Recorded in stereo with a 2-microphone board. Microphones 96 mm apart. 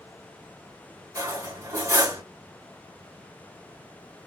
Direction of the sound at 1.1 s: 35° right (ahead or behind).